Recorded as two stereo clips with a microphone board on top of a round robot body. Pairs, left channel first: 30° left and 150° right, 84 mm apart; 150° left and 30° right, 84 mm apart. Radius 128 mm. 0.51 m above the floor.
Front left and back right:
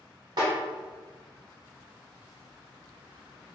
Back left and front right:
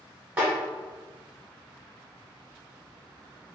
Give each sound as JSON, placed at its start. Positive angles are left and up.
{"t": 0.4, "sound": "a snare drum", "azimuth_deg": -100, "distance_m": 0.7}